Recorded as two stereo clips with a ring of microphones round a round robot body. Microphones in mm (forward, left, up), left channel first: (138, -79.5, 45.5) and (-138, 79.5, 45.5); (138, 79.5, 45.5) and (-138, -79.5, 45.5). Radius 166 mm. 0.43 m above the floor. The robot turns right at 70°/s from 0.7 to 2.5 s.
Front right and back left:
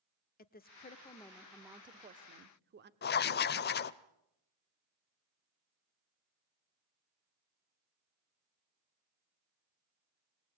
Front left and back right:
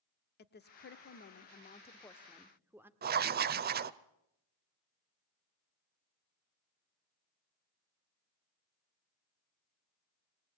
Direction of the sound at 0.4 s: 5° left.